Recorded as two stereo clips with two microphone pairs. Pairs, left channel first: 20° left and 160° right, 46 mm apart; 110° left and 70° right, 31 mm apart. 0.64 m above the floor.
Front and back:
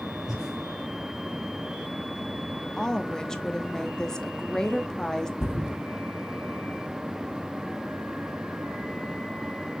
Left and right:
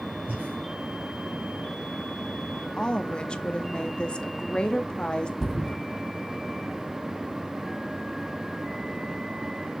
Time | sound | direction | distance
0.3 | breathing | 80° right | 3.5 m
2.8 | a woman speaking | 85° left | 0.7 m
5.4 | a thud | 35° left | 2 m